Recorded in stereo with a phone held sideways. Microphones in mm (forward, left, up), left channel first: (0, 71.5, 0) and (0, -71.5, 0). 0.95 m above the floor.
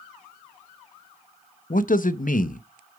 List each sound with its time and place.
1.7 s a man speaking: 70° left (ahead or behind), 0.7 m